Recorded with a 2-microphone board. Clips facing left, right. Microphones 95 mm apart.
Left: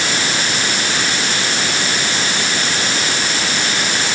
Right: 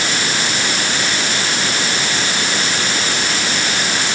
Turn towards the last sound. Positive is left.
No sound to turn to.